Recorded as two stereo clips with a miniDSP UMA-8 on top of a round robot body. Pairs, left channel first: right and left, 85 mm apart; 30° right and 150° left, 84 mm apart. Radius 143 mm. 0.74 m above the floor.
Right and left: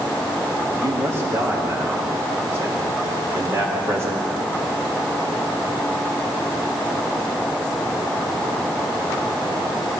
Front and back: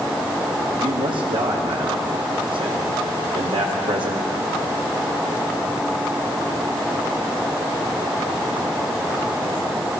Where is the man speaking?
145° left, 2.5 m.